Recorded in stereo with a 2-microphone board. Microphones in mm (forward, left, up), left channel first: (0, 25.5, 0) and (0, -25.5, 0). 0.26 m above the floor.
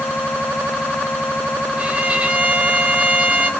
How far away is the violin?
About 1.4 m.